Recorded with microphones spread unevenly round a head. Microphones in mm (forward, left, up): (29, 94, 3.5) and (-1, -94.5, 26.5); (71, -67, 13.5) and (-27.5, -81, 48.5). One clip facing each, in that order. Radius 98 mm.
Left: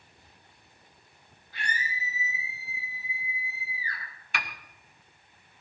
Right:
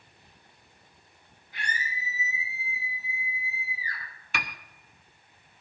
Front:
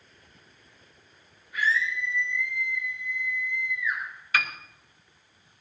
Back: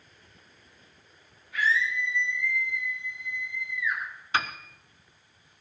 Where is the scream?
175° right, 8 m.